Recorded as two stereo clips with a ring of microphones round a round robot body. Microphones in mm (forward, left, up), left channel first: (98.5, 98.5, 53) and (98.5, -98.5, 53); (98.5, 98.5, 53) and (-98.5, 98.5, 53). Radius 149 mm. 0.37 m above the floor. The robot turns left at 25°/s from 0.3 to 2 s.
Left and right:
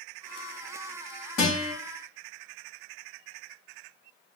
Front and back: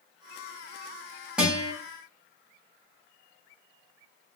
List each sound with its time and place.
1.4 s a guitar: 95° left, 1.7 m; by 1.7 s 85° left, 1.7 m